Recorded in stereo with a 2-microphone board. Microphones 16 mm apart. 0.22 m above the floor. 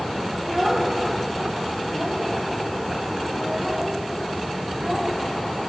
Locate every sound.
0.4 s a child speaking: 40° right (ahead or behind), 4.5 m